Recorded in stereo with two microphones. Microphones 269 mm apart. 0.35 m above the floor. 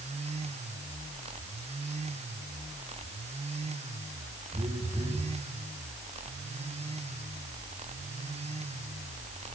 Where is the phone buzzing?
20° right (ahead or behind), 5.5 m.